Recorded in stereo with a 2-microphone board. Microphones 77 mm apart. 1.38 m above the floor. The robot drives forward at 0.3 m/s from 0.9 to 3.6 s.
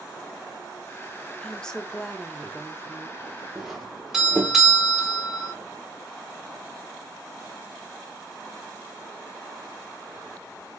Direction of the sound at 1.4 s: 10° left (ahead or behind).